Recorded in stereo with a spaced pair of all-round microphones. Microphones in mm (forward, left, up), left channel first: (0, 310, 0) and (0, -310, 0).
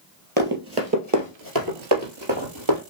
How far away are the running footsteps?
About 1.7 m.